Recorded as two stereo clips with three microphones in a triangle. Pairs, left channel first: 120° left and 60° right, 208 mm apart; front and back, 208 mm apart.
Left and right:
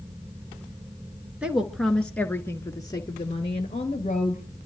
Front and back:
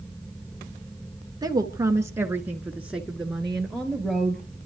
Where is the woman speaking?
135° right, 1.7 m; by 4.6 s 80° left, 2.5 m.